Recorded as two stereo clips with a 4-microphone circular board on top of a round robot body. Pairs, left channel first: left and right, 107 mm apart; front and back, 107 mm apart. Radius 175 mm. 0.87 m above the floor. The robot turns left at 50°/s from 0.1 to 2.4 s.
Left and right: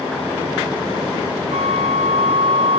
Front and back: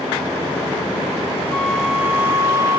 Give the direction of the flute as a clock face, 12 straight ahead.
3 o'clock.